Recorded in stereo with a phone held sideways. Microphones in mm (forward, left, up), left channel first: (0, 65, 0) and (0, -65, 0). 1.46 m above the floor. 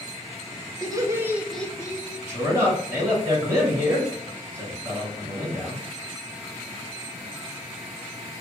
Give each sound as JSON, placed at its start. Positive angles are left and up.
{"t": 0.8, "sound": "laughter", "side_deg": -30, "distance_m": 1.0}
{"t": 2.3, "sound": "a man speaking", "side_deg": -25, "distance_m": 2.0}